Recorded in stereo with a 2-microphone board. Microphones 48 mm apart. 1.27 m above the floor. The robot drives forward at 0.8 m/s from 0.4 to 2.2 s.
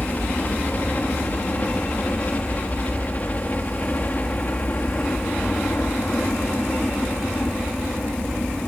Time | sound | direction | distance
0.0 | a helicopter | 35° left (ahead or behind) | ?